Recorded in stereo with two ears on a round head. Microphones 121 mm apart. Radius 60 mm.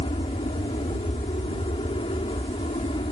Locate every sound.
0.0 s an aircraft: 40° left (ahead or behind)